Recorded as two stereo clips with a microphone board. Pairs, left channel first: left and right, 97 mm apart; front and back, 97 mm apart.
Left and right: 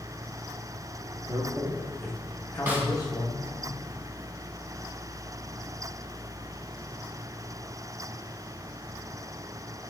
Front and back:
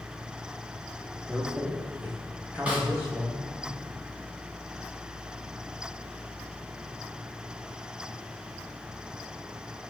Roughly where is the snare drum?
Behind right.